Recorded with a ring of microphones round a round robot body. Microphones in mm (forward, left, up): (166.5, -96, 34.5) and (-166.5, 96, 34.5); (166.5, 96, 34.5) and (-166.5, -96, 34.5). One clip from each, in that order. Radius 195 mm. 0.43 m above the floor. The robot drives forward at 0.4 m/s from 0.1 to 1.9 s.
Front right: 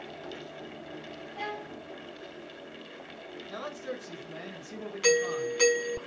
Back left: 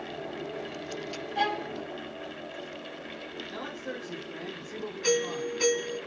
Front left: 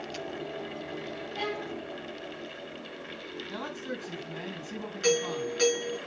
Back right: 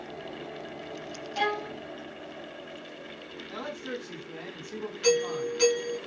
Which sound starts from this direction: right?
A man speaking, at 3.5 s.